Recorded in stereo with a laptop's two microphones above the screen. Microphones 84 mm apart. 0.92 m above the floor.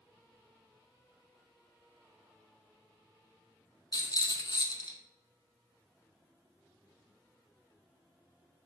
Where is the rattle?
50° left (ahead or behind), 0.5 m.